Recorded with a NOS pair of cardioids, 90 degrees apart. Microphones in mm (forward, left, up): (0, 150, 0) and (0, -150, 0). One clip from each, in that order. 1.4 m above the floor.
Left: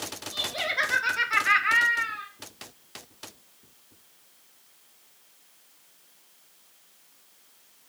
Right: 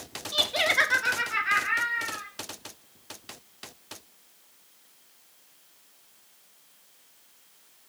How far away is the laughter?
About 0.8 m.